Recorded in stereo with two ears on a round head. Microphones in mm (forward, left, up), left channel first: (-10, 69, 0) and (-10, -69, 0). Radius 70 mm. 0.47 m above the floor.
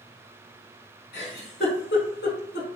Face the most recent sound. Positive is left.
turn(degrees=70)  # may be behind; listen again after turning